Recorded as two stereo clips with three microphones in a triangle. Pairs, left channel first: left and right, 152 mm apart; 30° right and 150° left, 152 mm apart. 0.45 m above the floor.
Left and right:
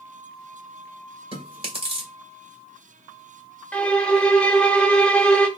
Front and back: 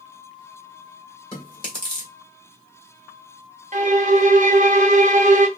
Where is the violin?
170° left, 0.7 m.